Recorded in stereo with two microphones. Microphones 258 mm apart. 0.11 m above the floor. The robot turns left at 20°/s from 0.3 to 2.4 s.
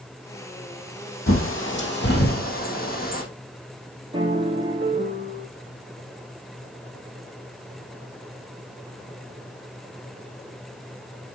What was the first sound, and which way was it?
A bird, 55° left (ahead or behind).